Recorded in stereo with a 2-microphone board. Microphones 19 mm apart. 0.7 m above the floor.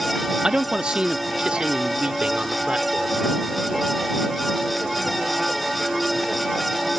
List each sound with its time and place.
0.4 s a man speaking: 45° right (ahead or behind); by 3.2 s 70° right (ahead or behind)